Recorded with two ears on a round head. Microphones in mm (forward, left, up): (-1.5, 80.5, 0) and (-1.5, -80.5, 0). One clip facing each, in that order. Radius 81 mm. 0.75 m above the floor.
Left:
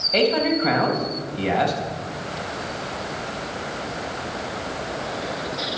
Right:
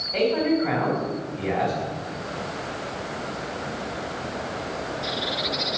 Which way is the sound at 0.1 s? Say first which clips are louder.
Left 1 dB; 80° left.